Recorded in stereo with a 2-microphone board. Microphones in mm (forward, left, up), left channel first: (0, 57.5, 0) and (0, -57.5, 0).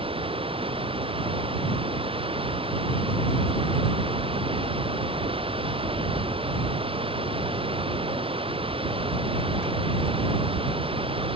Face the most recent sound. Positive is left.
turn(degrees=-50)  # may be behind; listen again after turning